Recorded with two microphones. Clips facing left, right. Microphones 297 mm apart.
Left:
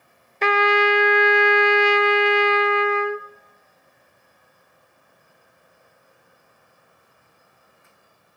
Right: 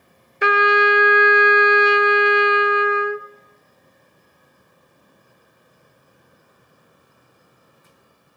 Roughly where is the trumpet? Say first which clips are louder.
Right 1 dB; centre.